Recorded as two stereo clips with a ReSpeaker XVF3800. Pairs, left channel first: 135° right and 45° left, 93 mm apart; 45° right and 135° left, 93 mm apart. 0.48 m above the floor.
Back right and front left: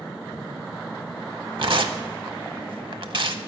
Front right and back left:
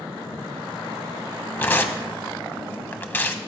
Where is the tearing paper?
20° left, 0.6 m.